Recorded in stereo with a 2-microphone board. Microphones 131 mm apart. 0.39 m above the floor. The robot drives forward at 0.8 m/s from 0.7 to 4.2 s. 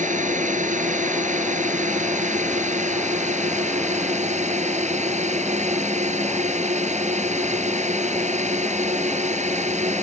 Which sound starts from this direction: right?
A drone, at 0.0 s.